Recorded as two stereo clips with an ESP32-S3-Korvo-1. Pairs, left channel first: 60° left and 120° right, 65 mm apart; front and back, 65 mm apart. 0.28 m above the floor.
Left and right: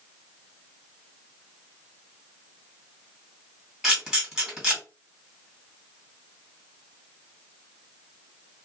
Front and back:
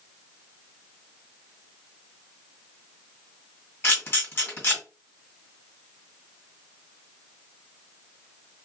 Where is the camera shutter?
45° right, 1.7 m.